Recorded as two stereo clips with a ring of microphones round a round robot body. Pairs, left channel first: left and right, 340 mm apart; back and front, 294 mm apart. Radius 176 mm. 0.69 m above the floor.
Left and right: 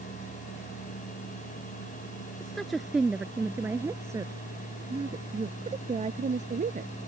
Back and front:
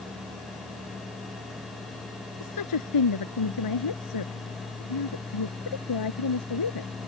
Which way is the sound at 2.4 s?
Straight behind.